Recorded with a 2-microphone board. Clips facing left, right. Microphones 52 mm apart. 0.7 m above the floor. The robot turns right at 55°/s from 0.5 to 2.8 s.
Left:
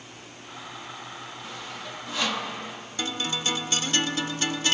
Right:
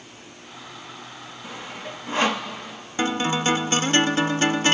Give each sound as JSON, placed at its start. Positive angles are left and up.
{"t": 1.4, "sound": "sawing", "side_deg": -25, "distance_m": 1.2}
{"t": 3.0, "sound": "a guitar", "side_deg": -40, "distance_m": 0.6}